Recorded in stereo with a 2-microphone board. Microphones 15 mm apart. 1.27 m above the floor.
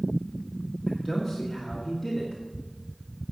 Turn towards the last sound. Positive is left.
turn(degrees=-10)  # may be behind; listen again after turning